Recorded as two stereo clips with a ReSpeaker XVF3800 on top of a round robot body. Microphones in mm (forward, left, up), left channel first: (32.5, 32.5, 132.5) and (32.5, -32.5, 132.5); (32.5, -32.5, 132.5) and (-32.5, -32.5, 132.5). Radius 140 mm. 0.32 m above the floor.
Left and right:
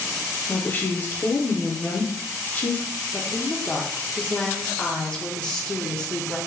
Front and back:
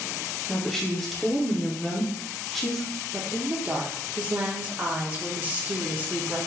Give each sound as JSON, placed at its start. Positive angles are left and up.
{"t": 0.5, "sound": "a woman speaking", "azimuth_deg": 80, "distance_m": 1.0}
{"t": 3.1, "sound": "a woman speaking", "azimuth_deg": 150, "distance_m": 0.9}